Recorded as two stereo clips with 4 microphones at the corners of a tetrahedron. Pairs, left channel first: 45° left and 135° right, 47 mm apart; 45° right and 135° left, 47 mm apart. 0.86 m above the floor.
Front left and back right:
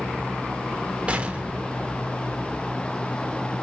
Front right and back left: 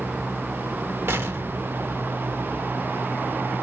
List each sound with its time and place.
1.1 s an explosion: 160° left, 0.9 m